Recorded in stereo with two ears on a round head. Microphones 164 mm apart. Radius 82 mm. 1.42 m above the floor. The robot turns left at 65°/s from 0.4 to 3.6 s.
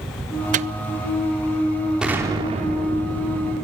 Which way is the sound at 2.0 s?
5° right.